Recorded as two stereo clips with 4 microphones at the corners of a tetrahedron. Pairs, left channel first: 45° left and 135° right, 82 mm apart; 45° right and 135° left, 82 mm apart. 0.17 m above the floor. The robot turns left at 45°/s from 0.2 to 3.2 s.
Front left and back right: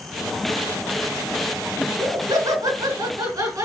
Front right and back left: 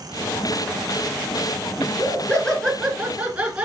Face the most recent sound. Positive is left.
turn(degrees=-160)